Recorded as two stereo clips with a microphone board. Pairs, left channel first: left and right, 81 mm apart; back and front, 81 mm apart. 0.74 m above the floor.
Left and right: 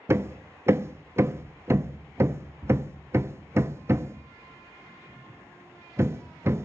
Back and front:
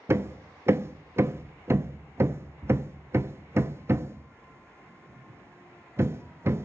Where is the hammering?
45° right, 0.5 m.